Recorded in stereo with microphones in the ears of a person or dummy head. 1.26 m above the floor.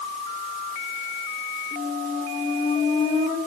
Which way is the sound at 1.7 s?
35° left (ahead or behind).